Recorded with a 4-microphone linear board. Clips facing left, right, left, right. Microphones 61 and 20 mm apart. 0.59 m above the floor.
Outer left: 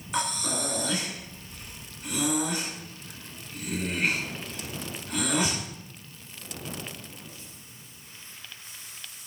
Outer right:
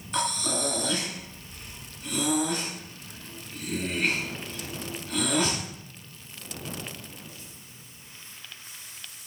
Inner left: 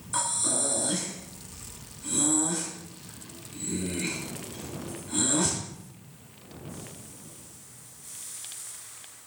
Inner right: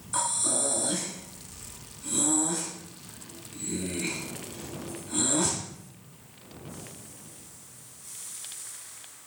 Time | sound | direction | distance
0.1 | breathing | 5° left (ahead or behind) | 3.5 m